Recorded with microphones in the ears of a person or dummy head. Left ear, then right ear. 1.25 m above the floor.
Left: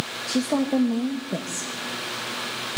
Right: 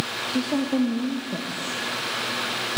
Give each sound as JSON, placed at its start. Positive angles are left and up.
{"t": 0.3, "sound": "a woman speaking", "side_deg": 65, "distance_m": 1.7}